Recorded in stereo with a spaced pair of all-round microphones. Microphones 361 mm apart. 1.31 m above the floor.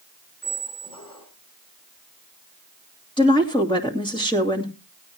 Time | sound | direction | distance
0.4 | a squeak | 65° left (ahead or behind) | 2.5 m
3.2 | a woman speaking | 15° left (ahead or behind) | 2.5 m